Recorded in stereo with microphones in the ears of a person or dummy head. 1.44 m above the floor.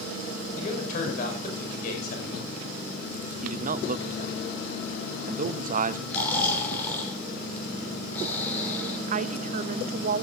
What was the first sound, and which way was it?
A man speaking, 40° left (ahead or behind).